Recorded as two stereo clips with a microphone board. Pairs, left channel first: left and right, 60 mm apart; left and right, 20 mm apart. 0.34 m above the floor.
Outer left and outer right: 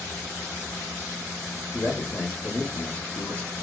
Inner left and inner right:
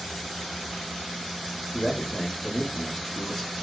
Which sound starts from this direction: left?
A man speaking, at 1.7 s.